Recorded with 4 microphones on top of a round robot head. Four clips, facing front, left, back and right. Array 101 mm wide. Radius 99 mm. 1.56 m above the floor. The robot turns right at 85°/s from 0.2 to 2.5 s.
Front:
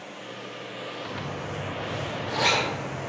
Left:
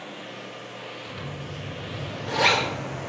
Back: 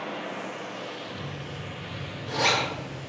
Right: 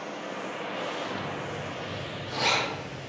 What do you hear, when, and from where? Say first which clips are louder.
0.0 s running water: right 3 dB, back 6 dB; 155° right, 0.8 m; by 3.1 s 40° left, 0.8 m
1.1 s a zipper: right 3 dB, front 4 dB; 15° right, 5.5 m; by 3.0 s 110° left, 5.5 m